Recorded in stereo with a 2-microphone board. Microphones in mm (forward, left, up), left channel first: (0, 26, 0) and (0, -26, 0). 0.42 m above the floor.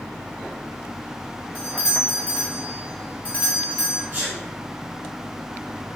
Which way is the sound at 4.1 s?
30° right (ahead or behind).